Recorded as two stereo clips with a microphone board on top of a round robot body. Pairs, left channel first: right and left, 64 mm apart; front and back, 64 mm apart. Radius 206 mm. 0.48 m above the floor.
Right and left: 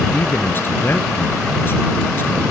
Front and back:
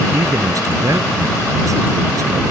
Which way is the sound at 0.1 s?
145° right.